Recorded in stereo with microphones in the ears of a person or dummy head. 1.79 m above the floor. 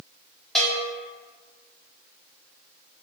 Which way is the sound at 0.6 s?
Centre (ahead or behind).